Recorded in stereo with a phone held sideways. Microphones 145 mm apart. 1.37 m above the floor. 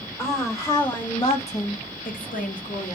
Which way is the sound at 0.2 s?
15° left (ahead or behind).